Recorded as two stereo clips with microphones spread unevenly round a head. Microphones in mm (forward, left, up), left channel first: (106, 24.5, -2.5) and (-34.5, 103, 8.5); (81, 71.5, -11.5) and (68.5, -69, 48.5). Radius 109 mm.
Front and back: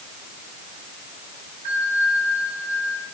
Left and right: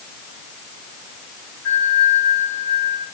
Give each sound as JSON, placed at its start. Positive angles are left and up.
{"t": 1.6, "sound": "a bell", "azimuth_deg": 125, "distance_m": 7.0}